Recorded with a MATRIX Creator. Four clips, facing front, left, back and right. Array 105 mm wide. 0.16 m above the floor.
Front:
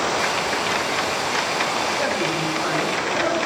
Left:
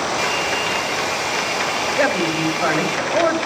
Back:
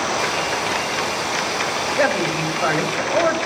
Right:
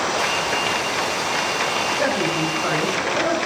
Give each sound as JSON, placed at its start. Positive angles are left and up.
{"t": 0.2, "sound": "a hair dryer", "azimuth_deg": 90, "distance_m": 7.0}
{"t": 2.0, "sound": "a woman speaking", "azimuth_deg": 130, "distance_m": 3.5}